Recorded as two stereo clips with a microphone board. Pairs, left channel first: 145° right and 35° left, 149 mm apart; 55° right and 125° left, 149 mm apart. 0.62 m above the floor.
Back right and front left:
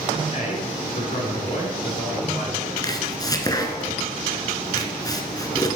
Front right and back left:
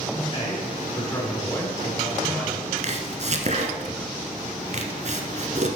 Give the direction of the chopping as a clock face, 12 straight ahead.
7 o'clock.